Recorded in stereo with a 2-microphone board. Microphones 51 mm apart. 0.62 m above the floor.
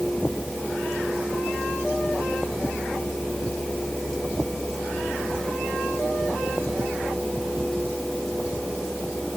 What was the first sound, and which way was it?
Only background noise.